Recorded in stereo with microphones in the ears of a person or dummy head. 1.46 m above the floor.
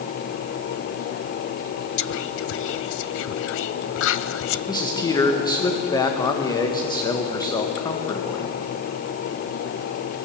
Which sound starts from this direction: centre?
A man speaking, at 4.7 s.